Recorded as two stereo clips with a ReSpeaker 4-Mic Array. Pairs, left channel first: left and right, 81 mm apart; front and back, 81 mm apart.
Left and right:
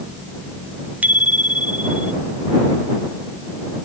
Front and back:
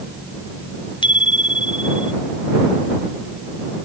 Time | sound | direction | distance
1.0 | a bicycle bell | 20° right | ?